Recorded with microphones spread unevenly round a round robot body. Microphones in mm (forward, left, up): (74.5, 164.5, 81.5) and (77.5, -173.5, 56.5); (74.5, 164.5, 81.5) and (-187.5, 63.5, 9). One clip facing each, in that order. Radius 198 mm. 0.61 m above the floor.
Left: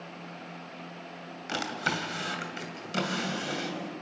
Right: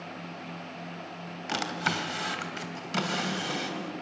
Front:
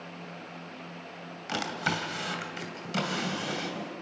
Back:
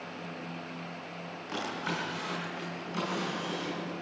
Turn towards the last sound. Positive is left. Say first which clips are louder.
# right 1 dB, front 2 dB
turn(degrees=-10)